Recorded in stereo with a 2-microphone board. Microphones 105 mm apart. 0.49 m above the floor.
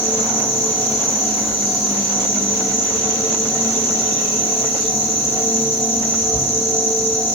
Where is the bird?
I don't hear a bird.